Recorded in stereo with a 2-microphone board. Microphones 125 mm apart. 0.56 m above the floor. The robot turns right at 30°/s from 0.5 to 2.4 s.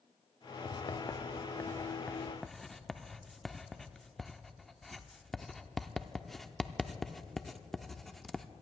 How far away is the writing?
About 0.6 m.